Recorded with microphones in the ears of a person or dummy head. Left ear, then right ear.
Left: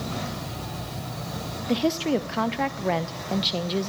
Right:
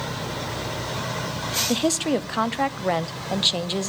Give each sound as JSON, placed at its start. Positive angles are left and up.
{"t": 1.7, "sound": "a woman speaking", "side_deg": -20, "distance_m": 0.7}